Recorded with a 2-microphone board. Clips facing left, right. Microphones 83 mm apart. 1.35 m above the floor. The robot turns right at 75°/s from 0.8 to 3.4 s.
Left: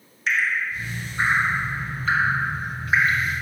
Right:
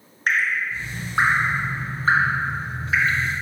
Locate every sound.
0.3 s dripping: 50° right (ahead or behind), 0.8 m; by 3.2 s 45° left (ahead or behind), 0.8 m